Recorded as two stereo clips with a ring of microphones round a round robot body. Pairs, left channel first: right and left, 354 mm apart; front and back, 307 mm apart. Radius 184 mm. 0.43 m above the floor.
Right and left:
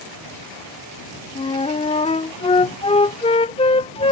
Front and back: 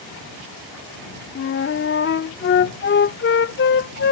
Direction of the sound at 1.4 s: 25° right.